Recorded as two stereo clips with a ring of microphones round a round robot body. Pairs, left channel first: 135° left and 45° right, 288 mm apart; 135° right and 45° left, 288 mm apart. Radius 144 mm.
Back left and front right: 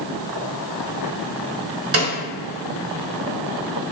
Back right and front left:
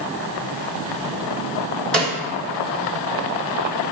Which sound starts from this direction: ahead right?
A snare drum, at 1.9 s.